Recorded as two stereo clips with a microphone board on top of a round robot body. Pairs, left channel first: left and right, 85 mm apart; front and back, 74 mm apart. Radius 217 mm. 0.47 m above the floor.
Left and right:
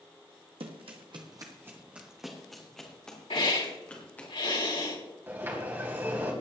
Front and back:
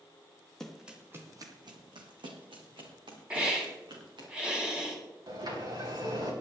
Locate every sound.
0.6 s running footsteps: 85° right, 1.5 m; by 4.3 s 160° left, 5 m
3.3 s a hiss: 100° left, 4 m
5.3 s a sliding door: 155° right, 4 m